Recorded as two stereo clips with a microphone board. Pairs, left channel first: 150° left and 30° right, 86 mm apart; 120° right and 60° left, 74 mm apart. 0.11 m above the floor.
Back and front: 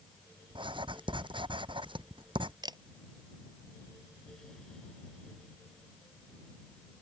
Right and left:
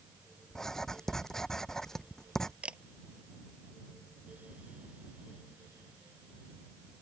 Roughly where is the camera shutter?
Ahead.